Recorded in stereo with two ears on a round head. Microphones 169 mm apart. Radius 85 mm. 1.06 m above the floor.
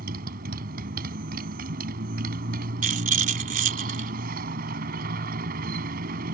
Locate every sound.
0.0 s a motorcycle: 45° right (ahead or behind)
2.8 s a rattle: 40° right (ahead or behind)